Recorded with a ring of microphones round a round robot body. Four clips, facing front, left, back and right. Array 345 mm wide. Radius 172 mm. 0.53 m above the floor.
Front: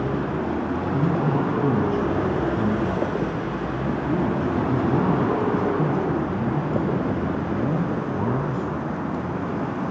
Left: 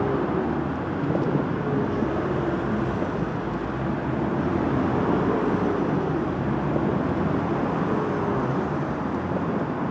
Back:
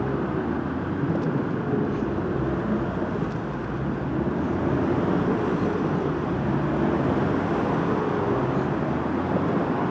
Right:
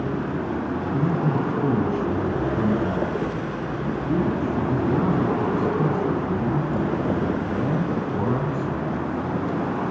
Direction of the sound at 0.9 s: 45° right.